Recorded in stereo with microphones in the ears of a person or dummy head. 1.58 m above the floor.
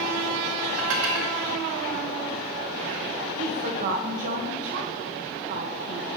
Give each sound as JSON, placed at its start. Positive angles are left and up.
{"t": 0.8, "sound": "dishes clattering", "side_deg": -70, "distance_m": 1.8}
{"t": 3.4, "sound": "a woman speaking", "side_deg": -50, "distance_m": 1.3}